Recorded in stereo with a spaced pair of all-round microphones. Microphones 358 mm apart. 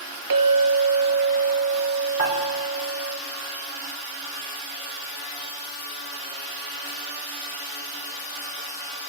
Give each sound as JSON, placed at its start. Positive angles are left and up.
{"t": 0.3, "sound": "a clink", "side_deg": -65, "distance_m": 1.2}
{"t": 2.2, "sound": "dishes clattering", "side_deg": 60, "distance_m": 2.5}